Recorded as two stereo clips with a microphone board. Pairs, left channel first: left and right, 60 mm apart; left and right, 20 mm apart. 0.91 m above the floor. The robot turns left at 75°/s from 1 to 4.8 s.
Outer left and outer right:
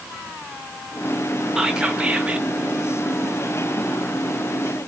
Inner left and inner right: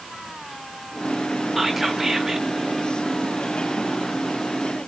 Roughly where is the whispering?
Centre.